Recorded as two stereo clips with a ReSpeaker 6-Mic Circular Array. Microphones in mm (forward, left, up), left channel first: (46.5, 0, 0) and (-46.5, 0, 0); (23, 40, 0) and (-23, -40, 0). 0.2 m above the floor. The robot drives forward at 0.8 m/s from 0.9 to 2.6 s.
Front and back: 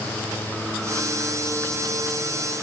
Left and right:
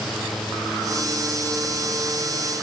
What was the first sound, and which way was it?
Only background noise.